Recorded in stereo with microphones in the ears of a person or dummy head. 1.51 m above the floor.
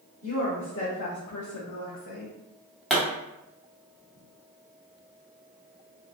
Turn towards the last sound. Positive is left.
turn(degrees=0)  # may be behind; listen again after turning